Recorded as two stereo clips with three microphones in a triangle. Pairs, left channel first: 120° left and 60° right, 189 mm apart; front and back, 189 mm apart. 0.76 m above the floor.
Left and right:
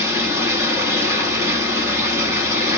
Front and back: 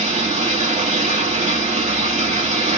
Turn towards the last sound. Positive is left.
turn(degrees=-130)